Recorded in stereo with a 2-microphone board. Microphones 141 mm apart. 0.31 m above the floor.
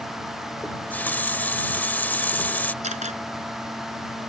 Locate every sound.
0.6 s a running tap: 15° left (ahead or behind)
2.8 s a camera shutter: 55° right (ahead or behind)